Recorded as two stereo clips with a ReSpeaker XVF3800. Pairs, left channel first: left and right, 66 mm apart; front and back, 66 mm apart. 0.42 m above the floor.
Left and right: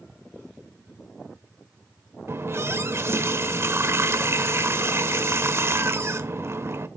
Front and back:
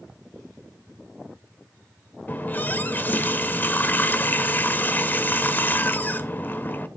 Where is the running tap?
55° right, 1.0 m.